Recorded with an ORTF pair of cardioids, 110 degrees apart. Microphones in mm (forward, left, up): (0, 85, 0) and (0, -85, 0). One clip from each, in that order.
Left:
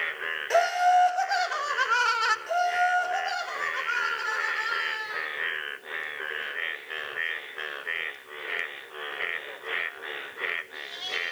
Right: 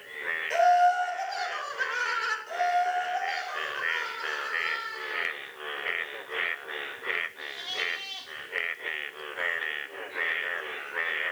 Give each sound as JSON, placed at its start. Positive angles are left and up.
{"t": 0.5, "sound": "laughter", "azimuth_deg": 55, "distance_m": 1.9}
{"t": 2.5, "sound": "laughter", "azimuth_deg": 70, "distance_m": 2.5}